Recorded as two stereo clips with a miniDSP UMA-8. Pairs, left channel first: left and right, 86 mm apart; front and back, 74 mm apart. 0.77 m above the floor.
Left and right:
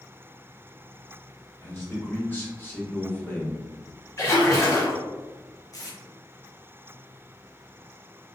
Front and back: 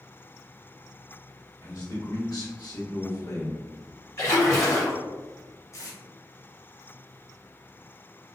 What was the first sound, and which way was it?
A man speaking, 30° left.